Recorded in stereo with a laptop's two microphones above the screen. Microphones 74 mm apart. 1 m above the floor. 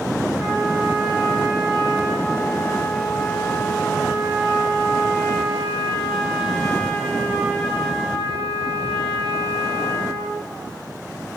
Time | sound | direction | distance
0.4 | a trumpet | 5° left (ahead or behind) | 3 m